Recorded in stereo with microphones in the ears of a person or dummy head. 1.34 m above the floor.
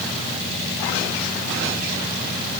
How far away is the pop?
No pop in this recording.